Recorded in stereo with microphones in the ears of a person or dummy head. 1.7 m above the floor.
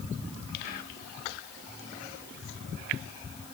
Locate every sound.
0.6 s whispering: 45° left (ahead or behind), 2.5 m